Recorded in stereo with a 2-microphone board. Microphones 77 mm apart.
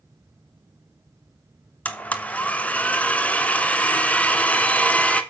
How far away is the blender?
About 1.0 m.